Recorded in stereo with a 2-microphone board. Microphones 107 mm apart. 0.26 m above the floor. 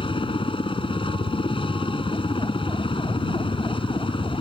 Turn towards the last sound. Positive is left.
turn(degrees=55)  # may be behind; listen again after turning